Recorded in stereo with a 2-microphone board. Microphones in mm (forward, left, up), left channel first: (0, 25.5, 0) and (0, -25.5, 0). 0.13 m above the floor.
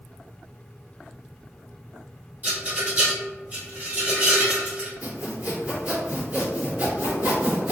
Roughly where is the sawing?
Right.